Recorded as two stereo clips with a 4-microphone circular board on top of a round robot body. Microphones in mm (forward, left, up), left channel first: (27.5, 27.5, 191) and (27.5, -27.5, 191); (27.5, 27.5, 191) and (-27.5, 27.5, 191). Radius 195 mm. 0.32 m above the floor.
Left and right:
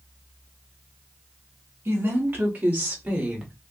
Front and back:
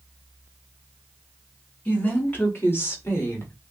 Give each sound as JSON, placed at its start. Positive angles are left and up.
{"t": 1.9, "sound": "a woman speaking", "azimuth_deg": -50, "distance_m": 2.5}